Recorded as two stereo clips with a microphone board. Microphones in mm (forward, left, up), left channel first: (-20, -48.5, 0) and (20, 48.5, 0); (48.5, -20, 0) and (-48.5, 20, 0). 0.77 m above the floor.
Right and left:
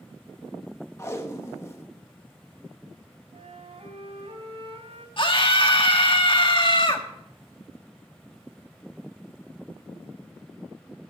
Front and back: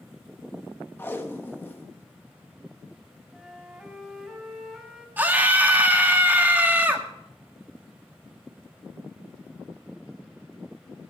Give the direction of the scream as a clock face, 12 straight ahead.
4 o'clock.